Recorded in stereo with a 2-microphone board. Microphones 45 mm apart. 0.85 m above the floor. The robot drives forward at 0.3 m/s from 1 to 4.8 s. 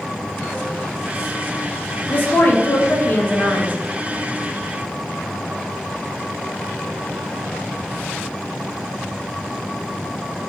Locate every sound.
2.1 s a woman speaking: 45° left (ahead or behind), 0.5 m; by 3.8 s 35° left (ahead or behind), 0.7 m